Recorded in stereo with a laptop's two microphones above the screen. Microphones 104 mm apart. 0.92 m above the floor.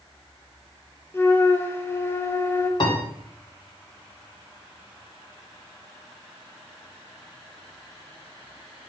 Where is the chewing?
I don't hear chewing.